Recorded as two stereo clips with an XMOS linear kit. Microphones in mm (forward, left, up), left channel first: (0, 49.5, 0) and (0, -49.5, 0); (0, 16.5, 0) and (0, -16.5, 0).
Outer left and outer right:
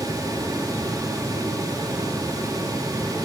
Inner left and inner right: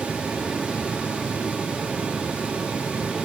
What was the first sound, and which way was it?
Only background noise.